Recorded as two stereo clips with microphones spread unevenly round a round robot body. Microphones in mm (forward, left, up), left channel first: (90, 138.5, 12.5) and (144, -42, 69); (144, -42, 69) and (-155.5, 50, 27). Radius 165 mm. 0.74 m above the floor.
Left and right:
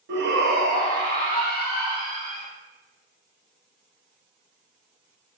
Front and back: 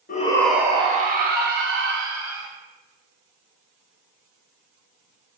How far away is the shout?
About 0.6 m.